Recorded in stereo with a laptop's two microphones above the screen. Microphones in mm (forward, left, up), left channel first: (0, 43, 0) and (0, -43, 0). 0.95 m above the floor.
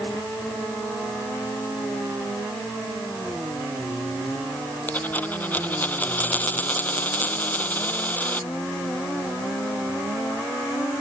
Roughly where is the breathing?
I don't hear breathing.